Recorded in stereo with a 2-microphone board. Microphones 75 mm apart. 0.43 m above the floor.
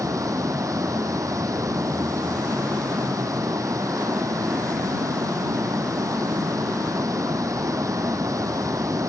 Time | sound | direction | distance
0.0 | running water | 50° right (ahead or behind) | ?